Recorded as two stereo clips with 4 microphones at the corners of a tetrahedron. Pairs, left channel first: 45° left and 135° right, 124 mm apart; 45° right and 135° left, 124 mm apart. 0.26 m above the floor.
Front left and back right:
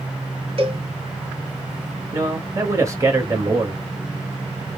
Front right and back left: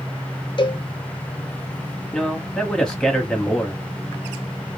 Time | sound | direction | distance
0.6 | a cowbell | 95° right | 1.0 m
2.1 | a man speaking | 120° right | 1.1 m